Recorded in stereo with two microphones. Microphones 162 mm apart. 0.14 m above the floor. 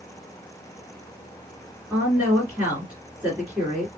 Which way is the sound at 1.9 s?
10° right (ahead or behind).